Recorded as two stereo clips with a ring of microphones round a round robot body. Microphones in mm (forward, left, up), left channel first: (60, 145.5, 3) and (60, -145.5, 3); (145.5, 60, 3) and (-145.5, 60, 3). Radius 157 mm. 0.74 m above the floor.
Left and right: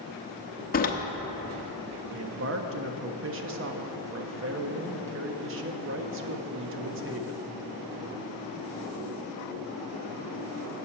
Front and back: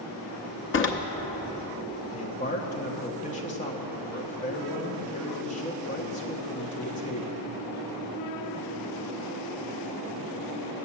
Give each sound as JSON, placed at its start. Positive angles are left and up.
{"t": 0.7, "sound": "a door slam", "azimuth_deg": 35, "distance_m": 0.9}
{"t": 2.1, "sound": "a man speaking", "azimuth_deg": -60, "distance_m": 0.8}